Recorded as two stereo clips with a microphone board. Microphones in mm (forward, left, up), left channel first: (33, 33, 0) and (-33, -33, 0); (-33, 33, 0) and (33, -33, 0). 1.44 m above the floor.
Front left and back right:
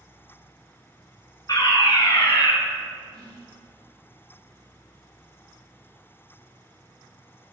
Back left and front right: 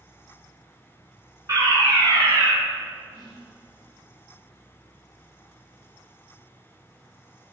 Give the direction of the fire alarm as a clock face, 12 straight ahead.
12 o'clock.